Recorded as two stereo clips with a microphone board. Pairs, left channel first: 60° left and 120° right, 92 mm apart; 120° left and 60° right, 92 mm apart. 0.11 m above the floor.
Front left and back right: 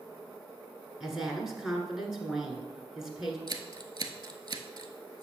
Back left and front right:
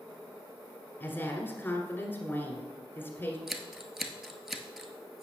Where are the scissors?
145° right, 0.8 m.